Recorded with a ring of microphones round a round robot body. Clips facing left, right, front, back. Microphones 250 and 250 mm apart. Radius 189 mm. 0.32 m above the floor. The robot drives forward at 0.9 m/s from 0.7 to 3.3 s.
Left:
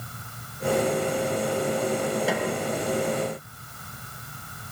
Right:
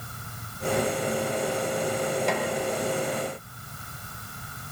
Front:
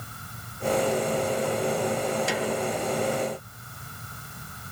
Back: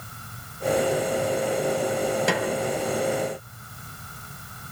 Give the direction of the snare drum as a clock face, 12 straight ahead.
6 o'clock.